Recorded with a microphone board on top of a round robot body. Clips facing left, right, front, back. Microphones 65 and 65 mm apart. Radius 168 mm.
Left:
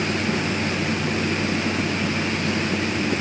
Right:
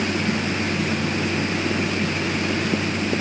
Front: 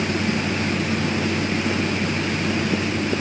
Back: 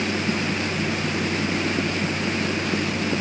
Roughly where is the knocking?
I don't hear knocking.